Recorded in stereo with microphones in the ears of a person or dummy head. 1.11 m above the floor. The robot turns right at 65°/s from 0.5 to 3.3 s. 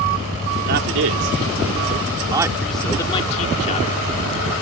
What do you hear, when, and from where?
0.7 s a man speaking: 45° right (ahead or behind); by 4.0 s 40° left (ahead or behind)